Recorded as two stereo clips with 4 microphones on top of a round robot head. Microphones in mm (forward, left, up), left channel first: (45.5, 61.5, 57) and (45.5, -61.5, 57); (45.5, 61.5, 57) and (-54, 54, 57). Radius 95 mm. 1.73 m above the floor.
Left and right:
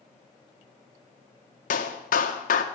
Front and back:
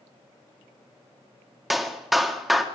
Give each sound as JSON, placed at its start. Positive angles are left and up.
{"t": 1.7, "sound": "a clap", "azimuth_deg": 95, "distance_m": 1.5}